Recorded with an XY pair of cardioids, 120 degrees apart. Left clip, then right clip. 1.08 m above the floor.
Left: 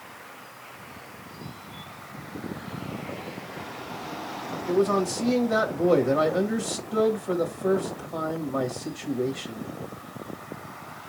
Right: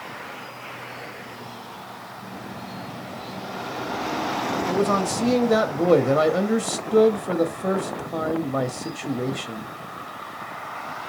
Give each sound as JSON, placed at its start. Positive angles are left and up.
{"t": 4.7, "sound": "a man speaking", "azimuth_deg": -40, "distance_m": 1.2}